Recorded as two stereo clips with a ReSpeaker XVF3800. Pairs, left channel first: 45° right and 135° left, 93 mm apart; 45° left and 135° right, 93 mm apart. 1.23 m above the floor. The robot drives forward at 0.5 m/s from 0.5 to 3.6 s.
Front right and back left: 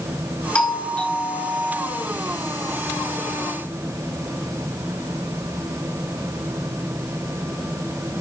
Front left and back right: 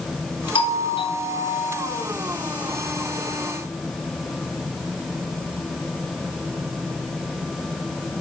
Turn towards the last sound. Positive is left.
turn(degrees=45)